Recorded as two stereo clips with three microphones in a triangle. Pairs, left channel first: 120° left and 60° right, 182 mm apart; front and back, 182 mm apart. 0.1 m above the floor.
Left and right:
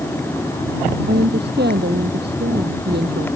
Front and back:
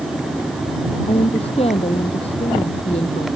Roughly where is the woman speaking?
Ahead right.